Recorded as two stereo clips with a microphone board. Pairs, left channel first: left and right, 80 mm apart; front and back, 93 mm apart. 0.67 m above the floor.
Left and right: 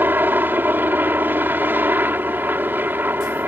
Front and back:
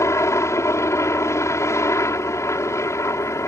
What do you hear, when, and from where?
0.0 s a helicopter: 40° right